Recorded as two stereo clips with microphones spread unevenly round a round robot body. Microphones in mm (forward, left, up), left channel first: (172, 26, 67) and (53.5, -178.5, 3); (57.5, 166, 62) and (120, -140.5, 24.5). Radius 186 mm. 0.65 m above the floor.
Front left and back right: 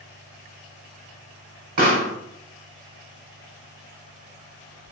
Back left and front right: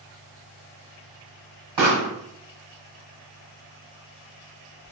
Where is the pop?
105° right, 1.2 m.